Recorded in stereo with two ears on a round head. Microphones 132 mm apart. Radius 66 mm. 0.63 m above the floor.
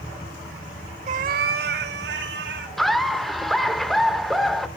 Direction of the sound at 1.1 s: 50° right (ahead or behind).